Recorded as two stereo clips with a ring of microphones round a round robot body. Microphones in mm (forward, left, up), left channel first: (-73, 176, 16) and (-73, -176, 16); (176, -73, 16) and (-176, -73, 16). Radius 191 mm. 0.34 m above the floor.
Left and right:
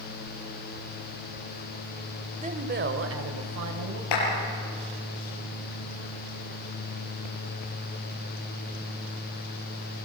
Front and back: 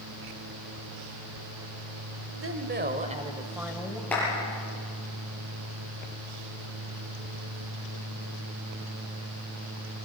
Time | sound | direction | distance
2.4 | a woman speaking | 155° right | 1.7 m
4.1 | a clap | 85° left | 7.5 m